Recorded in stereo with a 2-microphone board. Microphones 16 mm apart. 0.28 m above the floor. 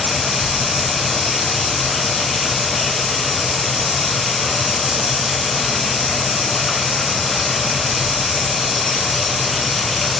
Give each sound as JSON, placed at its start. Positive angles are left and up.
{"t": 0.0, "sound": "running water", "side_deg": -5, "distance_m": 3.0}